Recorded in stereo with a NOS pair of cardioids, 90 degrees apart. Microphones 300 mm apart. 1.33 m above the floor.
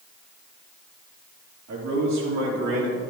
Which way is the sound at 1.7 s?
65° right.